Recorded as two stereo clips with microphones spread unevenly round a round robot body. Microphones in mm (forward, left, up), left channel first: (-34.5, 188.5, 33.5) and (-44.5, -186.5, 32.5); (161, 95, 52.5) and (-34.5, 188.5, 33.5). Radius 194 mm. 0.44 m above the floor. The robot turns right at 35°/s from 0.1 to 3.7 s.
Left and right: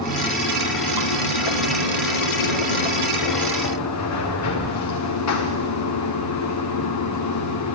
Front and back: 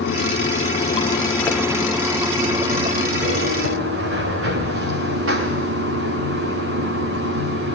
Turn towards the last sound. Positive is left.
turn(degrees=135)